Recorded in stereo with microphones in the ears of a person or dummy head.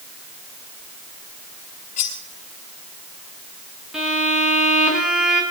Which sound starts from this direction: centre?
A violin, at 3.9 s.